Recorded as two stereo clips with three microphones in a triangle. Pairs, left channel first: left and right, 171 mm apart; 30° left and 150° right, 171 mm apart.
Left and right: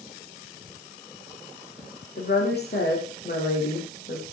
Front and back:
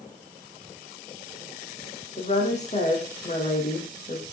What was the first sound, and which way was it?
A woman speaking, 75° left.